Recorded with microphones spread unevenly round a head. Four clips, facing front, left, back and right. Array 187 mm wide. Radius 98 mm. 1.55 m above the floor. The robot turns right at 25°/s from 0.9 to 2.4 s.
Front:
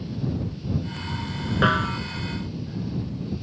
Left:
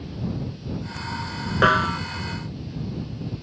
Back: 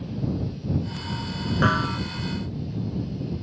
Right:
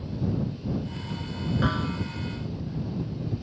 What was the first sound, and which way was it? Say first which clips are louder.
A snare drum: left 11 dB, front 1 dB; 70° left.